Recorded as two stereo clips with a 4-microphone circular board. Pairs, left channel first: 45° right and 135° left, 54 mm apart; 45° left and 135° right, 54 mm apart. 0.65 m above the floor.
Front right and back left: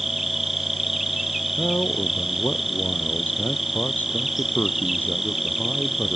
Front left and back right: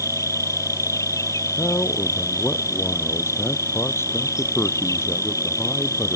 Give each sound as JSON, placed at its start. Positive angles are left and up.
{"t": 0.0, "sound": "an insect", "azimuth_deg": 50}
{"t": 1.6, "sound": "a man speaking", "azimuth_deg": 10}